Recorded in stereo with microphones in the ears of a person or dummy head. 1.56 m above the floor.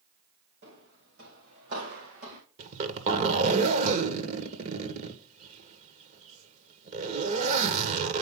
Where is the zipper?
30° right (ahead or behind), 1.4 m.